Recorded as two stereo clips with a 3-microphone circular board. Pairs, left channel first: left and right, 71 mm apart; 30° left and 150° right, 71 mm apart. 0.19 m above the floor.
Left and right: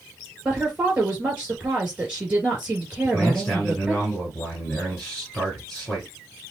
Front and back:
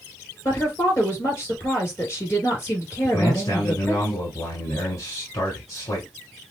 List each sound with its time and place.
0.5 s a woman speaking: 20° right, 2.5 m
3.0 s a man speaking: 5° left, 1.6 m